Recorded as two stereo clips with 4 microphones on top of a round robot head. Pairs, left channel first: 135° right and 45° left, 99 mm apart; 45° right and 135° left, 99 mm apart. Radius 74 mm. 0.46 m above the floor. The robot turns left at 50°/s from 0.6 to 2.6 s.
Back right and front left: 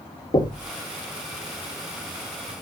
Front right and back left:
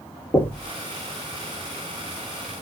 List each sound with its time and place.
0.3 s knocking: 110° right, 1.2 m